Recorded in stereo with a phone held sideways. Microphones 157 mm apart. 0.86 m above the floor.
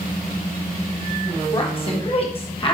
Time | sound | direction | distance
1.5 | a woman speaking | 35° left (ahead or behind) | 1.1 m